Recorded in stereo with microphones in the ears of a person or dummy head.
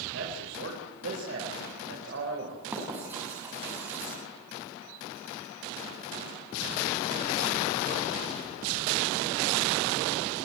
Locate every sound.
0.1 s a man speaking: 70° right (ahead or behind), 5 m
2.7 s writing: 20° right (ahead or behind), 6 m